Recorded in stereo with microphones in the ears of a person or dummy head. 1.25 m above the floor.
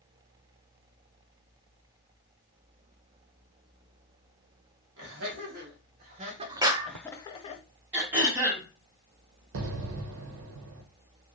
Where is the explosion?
70° right (ahead or behind), 0.6 m.